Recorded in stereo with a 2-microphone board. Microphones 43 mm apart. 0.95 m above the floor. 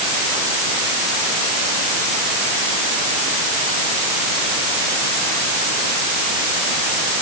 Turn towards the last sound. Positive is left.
No sound to turn to.